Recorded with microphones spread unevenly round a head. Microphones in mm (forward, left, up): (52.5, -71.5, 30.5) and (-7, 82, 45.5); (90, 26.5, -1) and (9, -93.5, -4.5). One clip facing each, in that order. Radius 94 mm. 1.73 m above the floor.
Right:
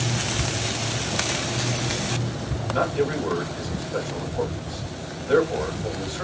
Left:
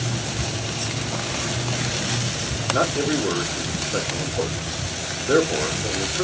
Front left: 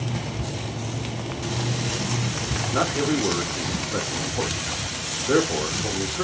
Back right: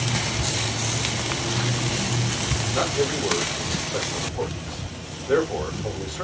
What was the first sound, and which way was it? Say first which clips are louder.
A man speaking: left 1 dB, front left 1 dB; 70° left.